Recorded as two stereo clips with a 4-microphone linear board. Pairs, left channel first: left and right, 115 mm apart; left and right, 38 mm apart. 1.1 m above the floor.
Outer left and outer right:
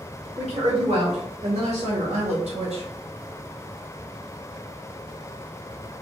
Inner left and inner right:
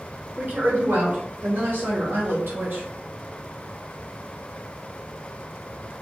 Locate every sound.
0.4 s a woman speaking: 55° right (ahead or behind), 1.9 m; by 2.8 s 75° right (ahead or behind), 0.9 m